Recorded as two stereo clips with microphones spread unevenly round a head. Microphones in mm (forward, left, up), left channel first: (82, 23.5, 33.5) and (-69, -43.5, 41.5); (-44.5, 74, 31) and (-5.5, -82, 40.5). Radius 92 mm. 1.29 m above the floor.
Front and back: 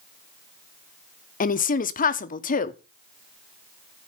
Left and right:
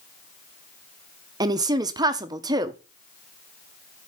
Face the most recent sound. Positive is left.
turn(degrees=-10)